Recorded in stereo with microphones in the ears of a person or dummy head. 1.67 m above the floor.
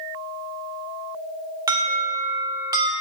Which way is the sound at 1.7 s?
20° right (ahead or behind).